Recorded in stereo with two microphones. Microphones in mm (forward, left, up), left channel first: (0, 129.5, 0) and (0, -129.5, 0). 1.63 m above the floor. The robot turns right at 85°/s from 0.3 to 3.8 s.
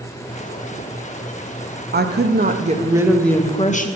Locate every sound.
1.9 s a woman speaking: 105° right, 0.5 m; by 3.9 s 50° left, 0.5 m